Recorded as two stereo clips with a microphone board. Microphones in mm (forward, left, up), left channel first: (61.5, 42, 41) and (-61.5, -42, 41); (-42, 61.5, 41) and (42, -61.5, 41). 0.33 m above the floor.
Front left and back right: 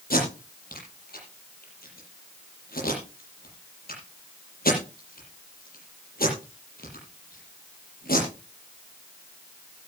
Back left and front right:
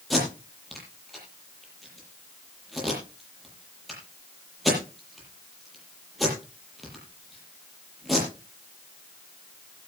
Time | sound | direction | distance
0.1 | tape being pulled | 35° left | 8.5 m